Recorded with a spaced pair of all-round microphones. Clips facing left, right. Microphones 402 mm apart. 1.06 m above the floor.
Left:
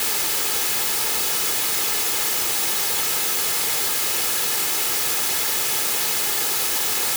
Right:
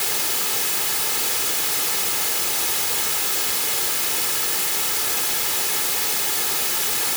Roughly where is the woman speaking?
No woman speaking in this recording.